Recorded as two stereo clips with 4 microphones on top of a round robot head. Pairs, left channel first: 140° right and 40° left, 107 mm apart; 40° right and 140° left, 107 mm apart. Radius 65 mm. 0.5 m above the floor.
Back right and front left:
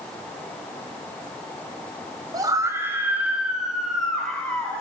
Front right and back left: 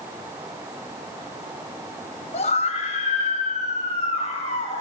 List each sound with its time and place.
2.3 s a scream: 15° right, 3.5 m; by 4.8 s 60° right, 5.5 m